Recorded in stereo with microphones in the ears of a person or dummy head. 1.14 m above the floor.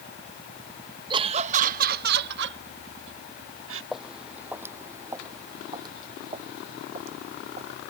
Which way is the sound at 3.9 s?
Centre (ahead or behind).